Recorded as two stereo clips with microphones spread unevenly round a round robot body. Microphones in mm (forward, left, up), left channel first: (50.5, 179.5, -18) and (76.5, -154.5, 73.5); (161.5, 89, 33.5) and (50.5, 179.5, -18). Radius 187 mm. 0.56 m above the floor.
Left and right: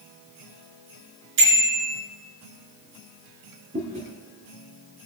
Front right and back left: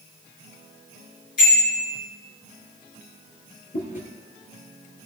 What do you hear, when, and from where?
1.4 s a bicycle bell: 80° right, 7 m
3.7 s chewing: 15° right, 4 m